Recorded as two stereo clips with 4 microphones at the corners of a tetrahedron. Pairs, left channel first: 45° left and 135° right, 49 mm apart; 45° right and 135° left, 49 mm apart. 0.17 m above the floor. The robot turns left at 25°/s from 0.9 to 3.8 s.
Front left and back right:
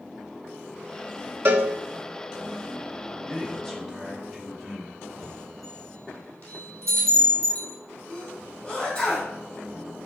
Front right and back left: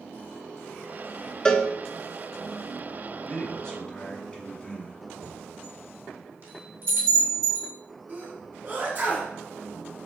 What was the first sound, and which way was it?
A cowbell, 110° right.